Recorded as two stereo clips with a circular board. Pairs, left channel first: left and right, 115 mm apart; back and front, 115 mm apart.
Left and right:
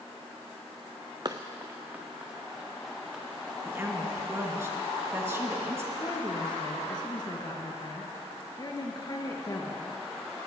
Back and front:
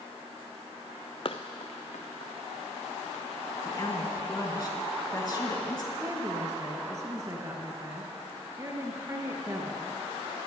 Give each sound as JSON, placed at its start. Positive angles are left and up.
{"t": 1.2, "sound": "running footsteps", "azimuth_deg": -140, "distance_m": 0.7}
{"t": 3.6, "sound": "a woman speaking", "azimuth_deg": -145, "distance_m": 1.9}
{"t": 6.0, "sound": "a woman speaking", "azimuth_deg": 55, "distance_m": 1.8}